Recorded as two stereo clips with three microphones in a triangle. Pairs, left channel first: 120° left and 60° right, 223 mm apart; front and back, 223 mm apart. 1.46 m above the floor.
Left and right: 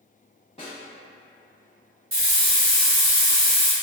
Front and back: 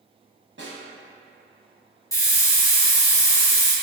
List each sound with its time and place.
0.6 s a snare drum: straight behind, 1.1 m
2.1 s a hiss: 75° right, 1.1 m